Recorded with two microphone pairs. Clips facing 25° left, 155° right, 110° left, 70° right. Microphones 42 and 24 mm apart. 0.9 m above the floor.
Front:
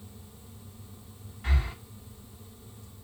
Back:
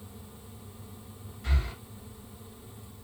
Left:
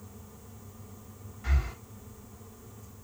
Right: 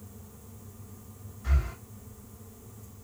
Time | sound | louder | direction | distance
1.4 | breathing | front 2 dB, even | 85° left | 2.5 m